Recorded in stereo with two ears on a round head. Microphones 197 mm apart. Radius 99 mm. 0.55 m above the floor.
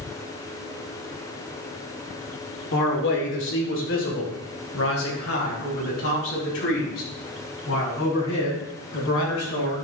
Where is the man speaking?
50° left (ahead or behind), 1.9 m; by 9.7 s 65° left (ahead or behind), 7 m.